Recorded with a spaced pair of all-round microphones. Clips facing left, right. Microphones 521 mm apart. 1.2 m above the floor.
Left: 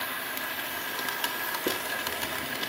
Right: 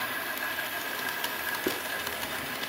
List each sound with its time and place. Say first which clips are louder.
1.7 s a hiss: even; centre (ahead or behind), 0.8 m